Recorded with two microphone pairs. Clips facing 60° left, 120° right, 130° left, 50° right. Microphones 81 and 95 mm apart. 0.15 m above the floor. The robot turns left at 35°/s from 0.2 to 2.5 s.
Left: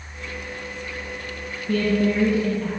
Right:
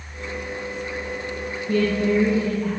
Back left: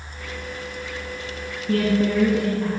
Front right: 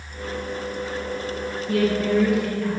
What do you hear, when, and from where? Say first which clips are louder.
1.7 s a woman speaking: even, back left 1 dB; 95° left, 2.5 m; by 2.7 s 65° left, 2.5 m